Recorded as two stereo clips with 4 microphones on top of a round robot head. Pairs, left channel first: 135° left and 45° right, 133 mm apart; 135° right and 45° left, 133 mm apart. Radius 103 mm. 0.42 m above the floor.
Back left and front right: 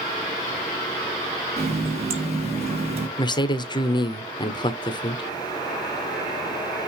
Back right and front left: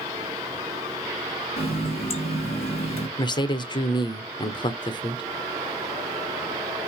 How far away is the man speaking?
About 1.2 m.